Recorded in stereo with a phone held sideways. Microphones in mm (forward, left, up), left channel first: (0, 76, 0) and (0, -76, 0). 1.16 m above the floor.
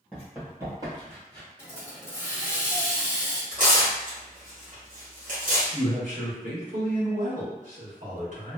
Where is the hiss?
15° left (ahead or behind), 1.0 m.